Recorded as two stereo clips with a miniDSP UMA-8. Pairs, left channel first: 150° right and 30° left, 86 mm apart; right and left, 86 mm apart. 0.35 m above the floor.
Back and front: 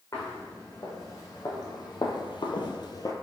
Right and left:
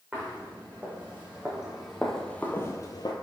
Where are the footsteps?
155° left, 1.9 m; by 3.1 s 105° right, 0.6 m.